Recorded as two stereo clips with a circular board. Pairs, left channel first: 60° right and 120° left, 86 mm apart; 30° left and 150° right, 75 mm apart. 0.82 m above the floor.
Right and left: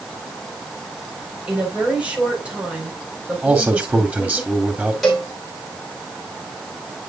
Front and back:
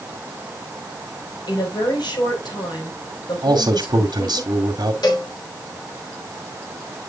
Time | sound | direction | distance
1.5 | a woman speaking | 45° left | 4 m
3.4 | a man speaking | 170° right | 2 m
5.0 | a cowbell | 30° left | 3.5 m